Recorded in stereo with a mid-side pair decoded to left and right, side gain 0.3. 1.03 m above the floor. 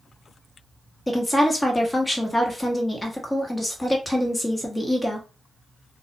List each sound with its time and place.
1.1 s a woman speaking: 20° left, 1.1 m